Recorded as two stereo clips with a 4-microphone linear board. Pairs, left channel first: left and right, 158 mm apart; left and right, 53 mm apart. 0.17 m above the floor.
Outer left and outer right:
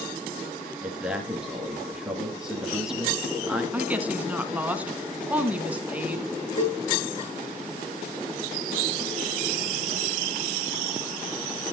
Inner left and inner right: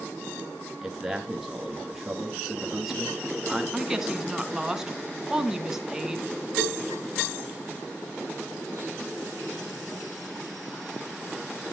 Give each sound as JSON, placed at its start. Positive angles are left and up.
{"t": 0.8, "sound": "a man speaking", "side_deg": -5, "distance_m": 2.5}
{"t": 3.7, "sound": "a woman speaking", "side_deg": -10, "distance_m": 1.9}
{"t": 6.6, "sound": "a cowbell", "side_deg": 80, "distance_m": 4.5}